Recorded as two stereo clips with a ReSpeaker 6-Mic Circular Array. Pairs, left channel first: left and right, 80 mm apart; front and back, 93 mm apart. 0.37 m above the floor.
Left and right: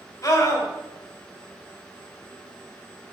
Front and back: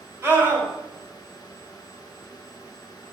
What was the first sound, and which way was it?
A scream, 125° left.